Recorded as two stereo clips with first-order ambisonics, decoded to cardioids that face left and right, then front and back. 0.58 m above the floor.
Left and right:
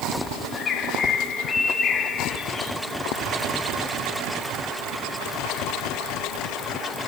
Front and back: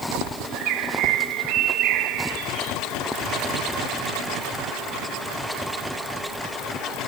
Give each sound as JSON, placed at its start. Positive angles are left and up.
{"t": 0.5, "sound": "a bird", "azimuth_deg": 155, "distance_m": 7.0}